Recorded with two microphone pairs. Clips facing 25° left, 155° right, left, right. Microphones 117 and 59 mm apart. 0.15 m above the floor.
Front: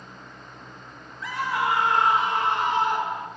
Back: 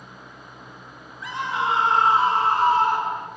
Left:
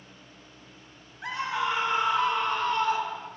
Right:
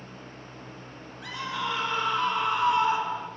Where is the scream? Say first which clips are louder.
Even, left 3 dB; 140° left, 2 m; by 3.3 s 130° right, 1.7 m.